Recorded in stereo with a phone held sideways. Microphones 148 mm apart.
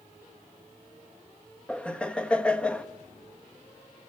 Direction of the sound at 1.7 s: 5° left (ahead or behind).